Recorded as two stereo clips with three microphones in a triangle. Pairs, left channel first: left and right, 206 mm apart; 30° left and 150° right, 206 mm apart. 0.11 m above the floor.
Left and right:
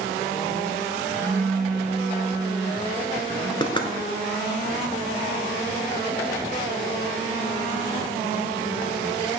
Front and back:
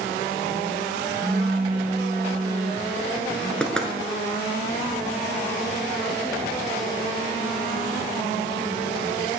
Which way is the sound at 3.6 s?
110° left.